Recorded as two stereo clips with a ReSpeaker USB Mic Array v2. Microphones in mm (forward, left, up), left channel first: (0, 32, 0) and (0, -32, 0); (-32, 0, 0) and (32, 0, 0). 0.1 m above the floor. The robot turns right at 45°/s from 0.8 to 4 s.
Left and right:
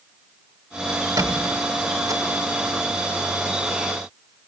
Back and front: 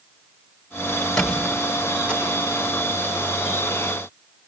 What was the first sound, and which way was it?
A squeak, 100° right.